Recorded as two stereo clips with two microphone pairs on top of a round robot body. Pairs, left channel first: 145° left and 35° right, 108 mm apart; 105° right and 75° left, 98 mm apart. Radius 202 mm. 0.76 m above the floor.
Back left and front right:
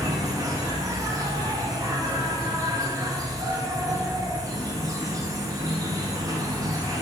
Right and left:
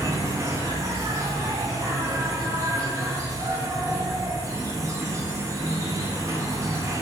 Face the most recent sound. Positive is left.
turn(degrees=15)